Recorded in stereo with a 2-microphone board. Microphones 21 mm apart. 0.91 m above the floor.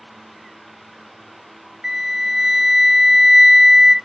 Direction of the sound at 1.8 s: 15° right (ahead or behind).